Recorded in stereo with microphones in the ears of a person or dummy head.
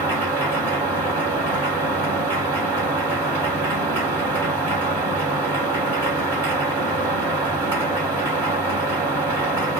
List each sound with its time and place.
0.0 s a machine running: 20° right (ahead or behind), 2.5 m